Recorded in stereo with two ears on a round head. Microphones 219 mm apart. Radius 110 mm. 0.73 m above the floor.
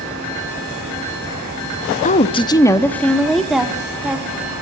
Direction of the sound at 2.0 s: 30° left (ahead or behind).